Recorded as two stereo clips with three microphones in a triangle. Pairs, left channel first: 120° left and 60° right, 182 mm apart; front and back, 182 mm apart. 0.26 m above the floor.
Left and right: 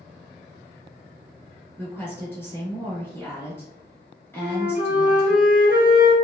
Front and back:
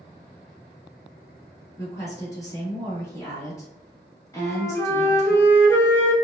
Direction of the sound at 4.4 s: 80° right.